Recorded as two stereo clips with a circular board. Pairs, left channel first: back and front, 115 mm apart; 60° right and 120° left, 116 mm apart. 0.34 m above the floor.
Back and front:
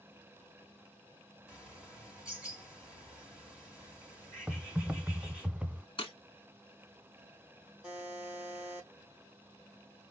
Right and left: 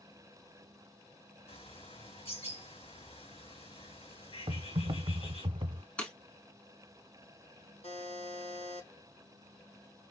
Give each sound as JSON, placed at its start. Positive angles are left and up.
{"t": 1.5, "sound": "a bird", "azimuth_deg": -85, "distance_m": 4.0}
{"t": 4.5, "sound": "typing on a keyboard", "azimuth_deg": 80, "distance_m": 0.5}
{"t": 6.0, "sound": "breaking glass", "azimuth_deg": -140, "distance_m": 1.6}
{"t": 7.8, "sound": "a buzzer", "azimuth_deg": -80, "distance_m": 3.5}